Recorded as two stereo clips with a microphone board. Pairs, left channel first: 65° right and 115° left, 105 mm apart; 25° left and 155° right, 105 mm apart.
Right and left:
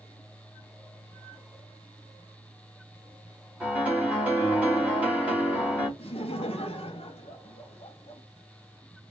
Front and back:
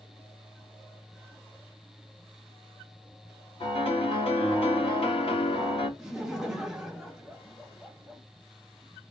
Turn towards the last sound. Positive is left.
turn(degrees=-70)